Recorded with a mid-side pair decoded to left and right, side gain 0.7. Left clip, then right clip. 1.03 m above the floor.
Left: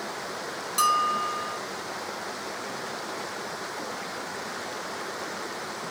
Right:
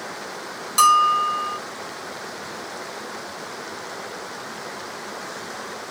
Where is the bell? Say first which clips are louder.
Right 8 dB; 25° right, 0.9 m.